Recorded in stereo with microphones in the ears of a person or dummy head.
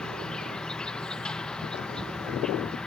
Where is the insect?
5° left (ahead or behind).